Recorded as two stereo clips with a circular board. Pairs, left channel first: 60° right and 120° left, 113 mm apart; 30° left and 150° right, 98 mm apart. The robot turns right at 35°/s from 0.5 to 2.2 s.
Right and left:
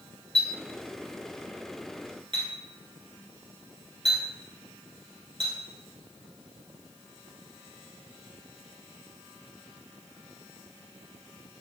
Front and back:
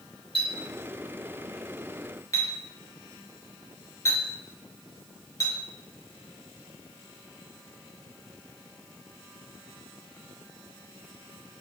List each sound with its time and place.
0.3 s a clink: 20° left, 1.6 m; by 5.5 s 80° left, 1.6 m